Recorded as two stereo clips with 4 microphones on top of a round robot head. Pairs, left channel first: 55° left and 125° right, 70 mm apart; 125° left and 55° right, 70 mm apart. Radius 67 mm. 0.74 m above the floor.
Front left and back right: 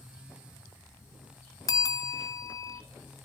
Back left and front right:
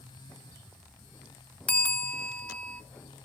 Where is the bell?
65° left, 1.7 m.